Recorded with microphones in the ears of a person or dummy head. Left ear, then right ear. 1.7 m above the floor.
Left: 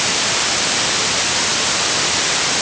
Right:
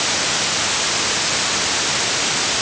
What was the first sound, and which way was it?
Only background noise.